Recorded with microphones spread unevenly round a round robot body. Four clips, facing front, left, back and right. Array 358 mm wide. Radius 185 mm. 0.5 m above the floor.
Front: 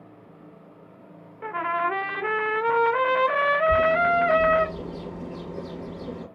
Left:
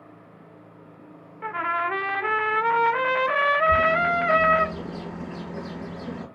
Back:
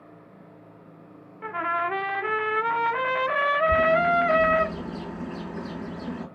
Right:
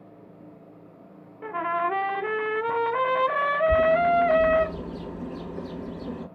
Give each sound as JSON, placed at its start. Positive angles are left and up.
{"t": 1.4, "sound": "a trumpet", "azimuth_deg": -60, "distance_m": 0.9}
{"t": 3.7, "sound": "a bird", "azimuth_deg": 125, "distance_m": 3.0}